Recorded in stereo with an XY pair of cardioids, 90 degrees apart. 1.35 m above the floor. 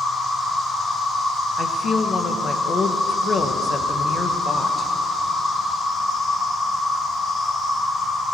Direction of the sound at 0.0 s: 65° left.